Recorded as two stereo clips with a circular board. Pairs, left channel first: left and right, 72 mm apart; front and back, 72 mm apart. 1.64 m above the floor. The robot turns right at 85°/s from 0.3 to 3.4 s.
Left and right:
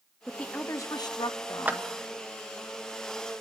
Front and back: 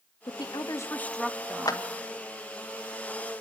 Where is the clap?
25° right, 1.6 m; by 1.8 s 15° right, 1.6 m.